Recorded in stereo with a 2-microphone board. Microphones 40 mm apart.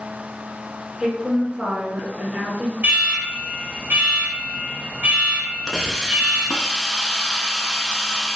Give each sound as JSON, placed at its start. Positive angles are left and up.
{"t": 1.0, "sound": "a woman speaking", "side_deg": -20, "distance_m": 1.1}
{"t": 2.8, "sound": "an alarm", "side_deg": -40, "distance_m": 1.9}
{"t": 5.7, "sound": "a hiss", "side_deg": 10, "distance_m": 0.5}